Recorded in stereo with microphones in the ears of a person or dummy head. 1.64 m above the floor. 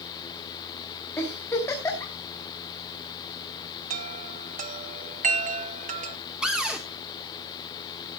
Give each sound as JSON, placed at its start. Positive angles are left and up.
{"t": 1.2, "sound": "a giggle", "side_deg": 15, "distance_m": 3.5}
{"t": 3.9, "sound": "a chime", "side_deg": -45, "distance_m": 0.9}
{"t": 6.4, "sound": "a cupboard door", "side_deg": -5, "distance_m": 1.6}